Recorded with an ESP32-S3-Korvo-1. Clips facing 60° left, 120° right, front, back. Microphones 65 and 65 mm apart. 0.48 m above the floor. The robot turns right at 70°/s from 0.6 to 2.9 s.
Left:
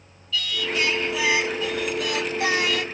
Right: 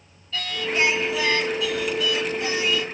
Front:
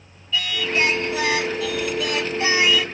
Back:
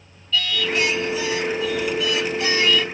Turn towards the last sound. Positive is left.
turn(degrees=90)